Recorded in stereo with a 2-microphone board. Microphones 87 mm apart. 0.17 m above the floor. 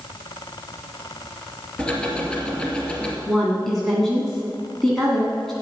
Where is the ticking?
10° left (ahead or behind), 2.5 m.